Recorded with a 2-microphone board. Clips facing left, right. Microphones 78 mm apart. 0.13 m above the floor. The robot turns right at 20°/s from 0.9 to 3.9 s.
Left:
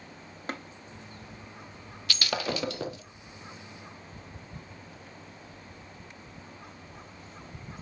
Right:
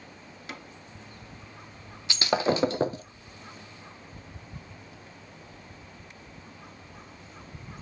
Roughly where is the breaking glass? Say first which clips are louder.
Right 6 dB; right.